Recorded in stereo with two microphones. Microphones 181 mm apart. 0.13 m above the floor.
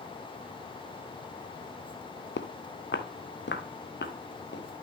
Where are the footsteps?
85° left, 0.8 m; by 4.8 s 80° left, 2 m.